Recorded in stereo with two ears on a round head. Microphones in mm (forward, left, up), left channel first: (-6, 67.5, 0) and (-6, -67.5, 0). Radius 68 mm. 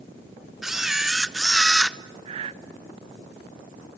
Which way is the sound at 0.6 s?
Centre (ahead or behind).